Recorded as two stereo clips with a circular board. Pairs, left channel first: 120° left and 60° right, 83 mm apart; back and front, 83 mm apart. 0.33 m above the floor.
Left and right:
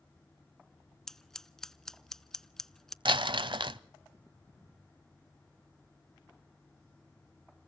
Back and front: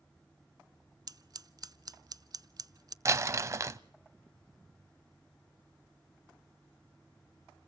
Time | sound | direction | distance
1.1 | scissors | 35° left | 0.5 m
3.0 | crumpling | 55° right | 0.6 m